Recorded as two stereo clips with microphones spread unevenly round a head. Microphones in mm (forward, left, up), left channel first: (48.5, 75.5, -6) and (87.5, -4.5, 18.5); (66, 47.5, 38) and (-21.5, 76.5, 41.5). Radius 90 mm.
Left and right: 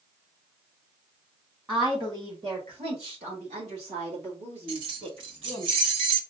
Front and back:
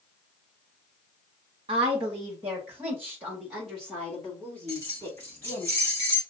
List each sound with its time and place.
1.7 s a woman speaking: 145° right, 1.4 m; by 5.7 s 90° right, 2.5 m
4.7 s keys jangling: 95° right, 0.6 m